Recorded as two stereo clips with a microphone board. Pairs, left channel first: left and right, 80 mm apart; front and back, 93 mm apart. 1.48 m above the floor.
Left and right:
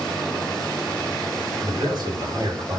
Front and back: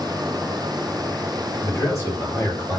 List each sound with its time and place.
1.6 s a man speaking: 65° right, 8 m